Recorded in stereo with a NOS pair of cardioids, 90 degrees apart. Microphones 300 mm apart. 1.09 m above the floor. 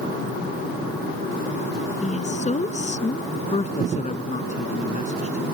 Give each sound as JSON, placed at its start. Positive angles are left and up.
{"t": 2.0, "sound": "a woman speaking", "azimuth_deg": 25}
{"t": 3.3, "sound": "a man speaking", "azimuth_deg": 25}